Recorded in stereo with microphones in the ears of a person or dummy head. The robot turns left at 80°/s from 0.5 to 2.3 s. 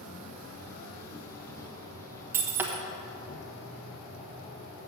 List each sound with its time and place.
0.0 s an insect: 100° right, 2.5 m; by 4.9 s 115° left, 2.5 m
2.3 s breaking glass: 10° right (ahead or behind), 1.1 m